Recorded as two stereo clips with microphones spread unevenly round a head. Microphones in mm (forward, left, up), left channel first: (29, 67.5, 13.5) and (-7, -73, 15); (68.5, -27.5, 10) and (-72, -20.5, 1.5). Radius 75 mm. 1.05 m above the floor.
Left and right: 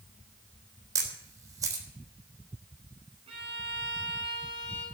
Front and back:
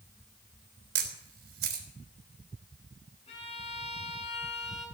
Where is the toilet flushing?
I don't hear a toilet flushing.